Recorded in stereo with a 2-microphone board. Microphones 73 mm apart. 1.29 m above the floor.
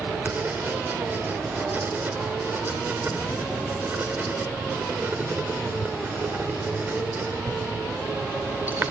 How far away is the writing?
About 1.6 m.